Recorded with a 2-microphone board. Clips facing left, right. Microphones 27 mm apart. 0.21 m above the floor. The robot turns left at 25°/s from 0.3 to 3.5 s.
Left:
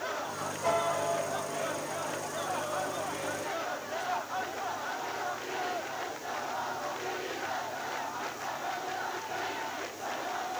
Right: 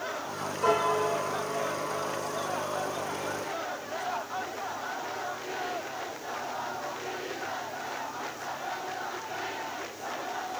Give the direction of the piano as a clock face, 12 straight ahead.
3 o'clock.